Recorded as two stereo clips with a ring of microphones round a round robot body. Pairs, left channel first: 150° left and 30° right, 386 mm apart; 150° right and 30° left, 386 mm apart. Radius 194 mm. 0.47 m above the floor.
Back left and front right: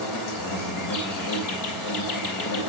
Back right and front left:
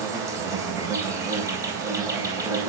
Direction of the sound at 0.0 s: 110° left.